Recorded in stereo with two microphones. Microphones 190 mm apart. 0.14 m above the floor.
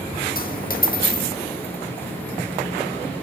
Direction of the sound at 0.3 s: 50° left (ahead or behind).